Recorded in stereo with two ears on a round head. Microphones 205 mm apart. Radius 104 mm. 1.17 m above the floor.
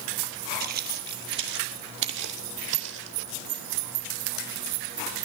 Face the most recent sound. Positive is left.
turn(degrees=-55)  # may be behind; listen again after turning